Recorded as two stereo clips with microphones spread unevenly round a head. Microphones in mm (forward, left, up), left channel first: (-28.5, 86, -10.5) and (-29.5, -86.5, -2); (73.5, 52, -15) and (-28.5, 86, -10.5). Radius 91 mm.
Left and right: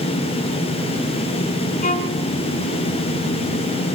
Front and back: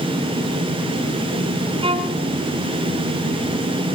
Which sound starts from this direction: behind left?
A violin, at 1.8 s.